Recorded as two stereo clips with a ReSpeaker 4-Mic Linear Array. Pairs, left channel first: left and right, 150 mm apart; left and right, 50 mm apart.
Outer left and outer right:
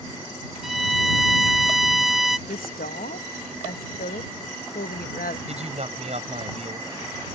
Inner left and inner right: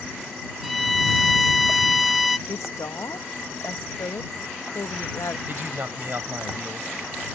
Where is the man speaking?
50° right (ahead or behind).